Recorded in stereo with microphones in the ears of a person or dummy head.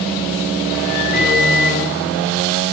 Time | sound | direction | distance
1.1 | a microwave | 50° left (ahead or behind) | 2.5 m